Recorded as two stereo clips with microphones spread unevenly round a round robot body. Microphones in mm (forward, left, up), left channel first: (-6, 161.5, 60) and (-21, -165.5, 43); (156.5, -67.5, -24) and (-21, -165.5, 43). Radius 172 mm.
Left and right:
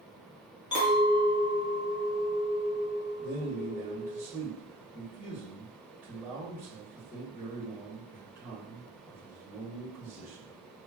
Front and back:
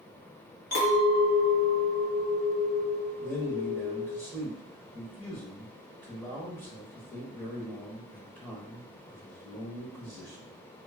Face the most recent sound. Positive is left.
turn(degrees=-20)